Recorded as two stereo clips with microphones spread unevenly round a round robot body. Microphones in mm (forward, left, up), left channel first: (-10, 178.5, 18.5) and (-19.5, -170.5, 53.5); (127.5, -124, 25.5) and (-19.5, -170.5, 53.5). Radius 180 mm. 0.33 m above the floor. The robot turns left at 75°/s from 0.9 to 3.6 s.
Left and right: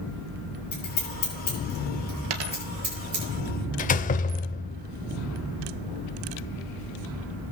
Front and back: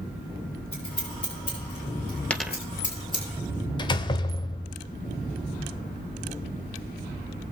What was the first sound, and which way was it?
Scissors, 125° left.